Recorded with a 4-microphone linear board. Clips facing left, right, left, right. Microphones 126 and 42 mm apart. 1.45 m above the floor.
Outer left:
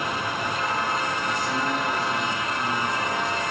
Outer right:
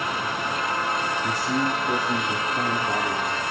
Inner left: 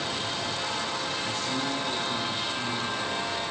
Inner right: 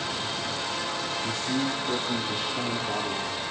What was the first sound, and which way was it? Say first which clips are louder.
A man speaking: outer right 2 dB, inner right 2 dB; 35° right (ahead or behind).